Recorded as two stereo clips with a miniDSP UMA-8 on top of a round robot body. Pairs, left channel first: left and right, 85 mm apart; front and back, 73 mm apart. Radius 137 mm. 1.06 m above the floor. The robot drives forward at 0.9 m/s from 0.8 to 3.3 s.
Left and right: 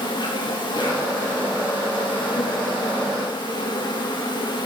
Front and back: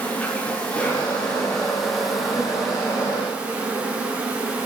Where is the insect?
70° left, 3.5 m; by 4.7 s 110° left, 3.5 m.